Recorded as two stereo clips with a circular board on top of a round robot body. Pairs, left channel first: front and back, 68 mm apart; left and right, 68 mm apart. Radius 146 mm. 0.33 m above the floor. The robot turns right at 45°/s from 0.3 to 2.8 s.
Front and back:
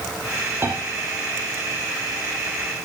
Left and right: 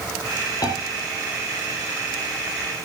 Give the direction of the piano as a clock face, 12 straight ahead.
8 o'clock.